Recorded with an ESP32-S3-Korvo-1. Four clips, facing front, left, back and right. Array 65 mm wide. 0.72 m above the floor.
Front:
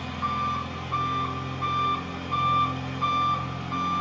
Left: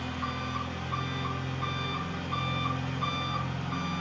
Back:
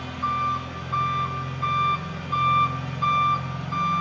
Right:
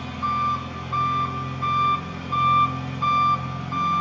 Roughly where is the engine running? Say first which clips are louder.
Right 10 dB, back 2 dB; ahead.